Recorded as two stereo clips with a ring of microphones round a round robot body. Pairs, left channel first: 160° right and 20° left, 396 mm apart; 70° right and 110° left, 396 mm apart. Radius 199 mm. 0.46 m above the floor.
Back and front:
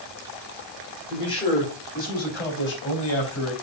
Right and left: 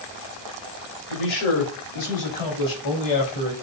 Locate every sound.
1.1 s a man speaking: 80° right, 2.5 m; by 3.5 s 105° right, 3.5 m